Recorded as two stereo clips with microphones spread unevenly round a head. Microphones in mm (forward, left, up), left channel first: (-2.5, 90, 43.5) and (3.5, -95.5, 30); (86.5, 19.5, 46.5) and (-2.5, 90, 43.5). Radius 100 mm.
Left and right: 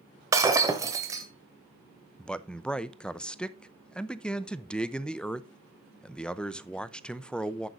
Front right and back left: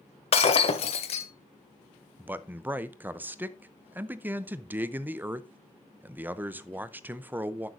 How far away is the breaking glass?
About 1.3 m.